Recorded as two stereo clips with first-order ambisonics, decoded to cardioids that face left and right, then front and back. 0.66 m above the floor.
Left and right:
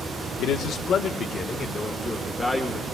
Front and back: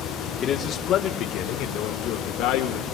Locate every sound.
0.4 s a man speaking: 55° left, 1.0 m; by 3.0 s straight ahead, 1.8 m